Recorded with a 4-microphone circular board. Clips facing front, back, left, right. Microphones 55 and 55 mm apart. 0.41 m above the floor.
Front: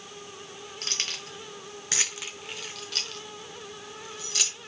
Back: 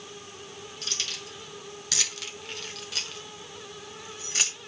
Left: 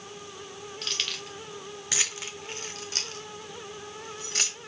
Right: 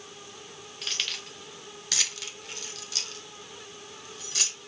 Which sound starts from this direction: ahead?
Keys jangling, at 0.8 s.